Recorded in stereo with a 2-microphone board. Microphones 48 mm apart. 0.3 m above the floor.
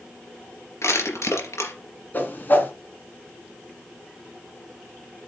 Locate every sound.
0.8 s crushing: 80° left, 3.5 m
2.1 s a whoosh: 40° left (ahead or behind), 2.5 m